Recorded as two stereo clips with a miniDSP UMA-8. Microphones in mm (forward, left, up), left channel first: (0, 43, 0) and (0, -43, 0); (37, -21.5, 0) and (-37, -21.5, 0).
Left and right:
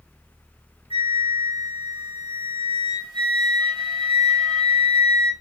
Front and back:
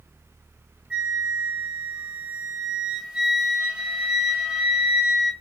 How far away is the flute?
About 1.5 m.